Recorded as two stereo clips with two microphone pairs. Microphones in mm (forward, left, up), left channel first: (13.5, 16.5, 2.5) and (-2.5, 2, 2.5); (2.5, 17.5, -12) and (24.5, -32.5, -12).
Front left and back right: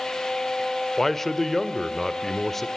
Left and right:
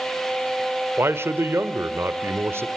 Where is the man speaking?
35° right, 1.4 m.